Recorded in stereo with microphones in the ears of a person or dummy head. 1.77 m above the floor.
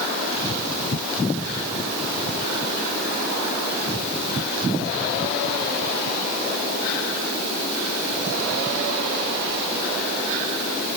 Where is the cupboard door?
I don't hear a cupboard door.